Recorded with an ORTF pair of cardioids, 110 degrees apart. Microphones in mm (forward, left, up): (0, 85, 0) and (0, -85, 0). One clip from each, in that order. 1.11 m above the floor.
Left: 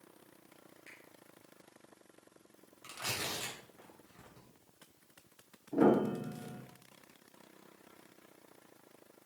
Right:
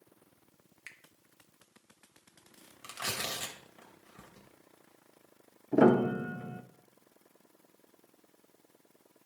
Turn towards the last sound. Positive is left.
turn(degrees=-45)